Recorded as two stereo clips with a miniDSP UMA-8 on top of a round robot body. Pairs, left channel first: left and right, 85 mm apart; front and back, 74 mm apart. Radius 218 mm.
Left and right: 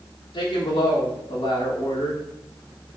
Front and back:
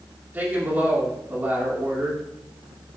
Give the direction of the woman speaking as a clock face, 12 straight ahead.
8 o'clock.